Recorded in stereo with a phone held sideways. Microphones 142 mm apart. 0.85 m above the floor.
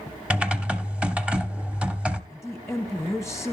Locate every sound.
0.3 s typing on a keyboard: 10° right (ahead or behind), 0.8 m
2.3 s a woman speaking: centre (ahead or behind), 1.0 m